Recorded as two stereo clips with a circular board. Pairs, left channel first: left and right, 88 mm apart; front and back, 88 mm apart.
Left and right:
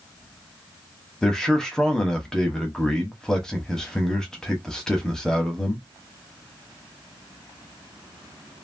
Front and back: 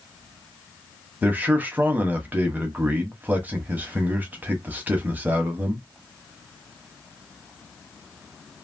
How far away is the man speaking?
About 1.0 m.